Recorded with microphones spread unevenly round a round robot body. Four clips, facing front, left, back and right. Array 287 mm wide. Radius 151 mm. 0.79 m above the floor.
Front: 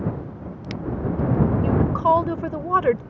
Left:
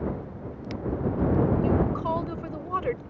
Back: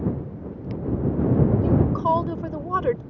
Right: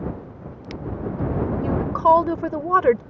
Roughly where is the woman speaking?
Ahead right.